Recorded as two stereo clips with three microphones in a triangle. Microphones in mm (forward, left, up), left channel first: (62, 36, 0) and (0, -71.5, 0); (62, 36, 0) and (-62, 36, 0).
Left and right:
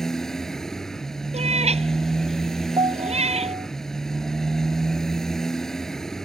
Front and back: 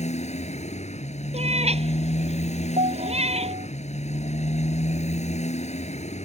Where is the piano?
165° right.